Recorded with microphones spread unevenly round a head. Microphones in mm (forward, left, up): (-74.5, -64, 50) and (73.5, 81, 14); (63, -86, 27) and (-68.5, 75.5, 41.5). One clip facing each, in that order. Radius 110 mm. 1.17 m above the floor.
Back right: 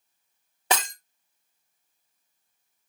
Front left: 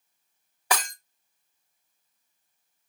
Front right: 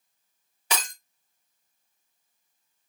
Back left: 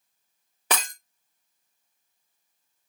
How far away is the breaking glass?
About 0.5 m.